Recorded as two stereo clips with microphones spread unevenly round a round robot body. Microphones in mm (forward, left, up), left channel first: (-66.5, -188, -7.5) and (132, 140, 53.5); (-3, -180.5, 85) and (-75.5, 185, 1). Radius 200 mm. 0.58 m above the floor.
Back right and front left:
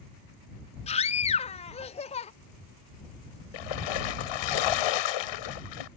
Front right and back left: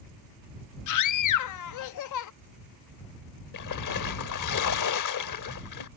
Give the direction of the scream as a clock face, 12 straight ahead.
3 o'clock.